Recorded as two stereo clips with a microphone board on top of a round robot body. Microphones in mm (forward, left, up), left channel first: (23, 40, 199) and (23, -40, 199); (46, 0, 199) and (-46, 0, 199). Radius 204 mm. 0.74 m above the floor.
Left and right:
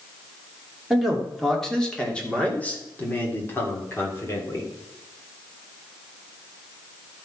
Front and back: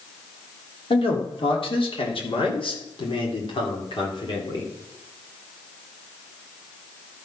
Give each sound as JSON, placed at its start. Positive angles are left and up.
{"t": 0.9, "sound": "a man speaking", "azimuth_deg": 0, "distance_m": 3.0}